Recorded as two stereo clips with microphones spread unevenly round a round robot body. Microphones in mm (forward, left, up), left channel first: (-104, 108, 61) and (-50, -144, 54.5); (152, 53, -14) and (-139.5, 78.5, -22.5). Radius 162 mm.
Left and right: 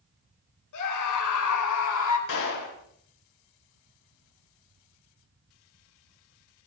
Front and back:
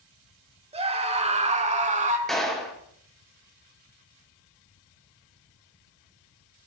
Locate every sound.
0.7 s a scream: 105° left, 5 m; by 2.2 s 110° left, 4 m
2.3 s a clap: 85° left, 4.5 m